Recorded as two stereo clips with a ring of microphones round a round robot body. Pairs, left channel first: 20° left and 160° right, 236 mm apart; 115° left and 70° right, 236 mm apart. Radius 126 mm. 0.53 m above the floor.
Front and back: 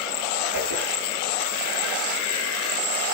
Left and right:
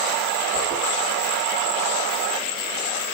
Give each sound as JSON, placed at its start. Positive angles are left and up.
{"t": 0.5, "sound": "a whoosh", "azimuth_deg": -130, "distance_m": 6.0}